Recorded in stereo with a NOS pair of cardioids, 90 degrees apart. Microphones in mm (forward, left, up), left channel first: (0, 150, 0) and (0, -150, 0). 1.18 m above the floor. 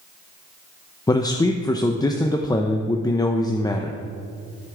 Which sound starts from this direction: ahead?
A man speaking, at 1.1 s.